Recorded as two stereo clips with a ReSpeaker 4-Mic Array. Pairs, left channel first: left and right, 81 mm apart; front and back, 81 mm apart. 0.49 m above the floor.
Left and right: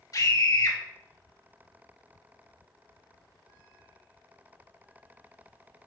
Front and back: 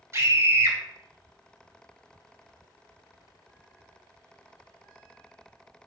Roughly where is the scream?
Behind left.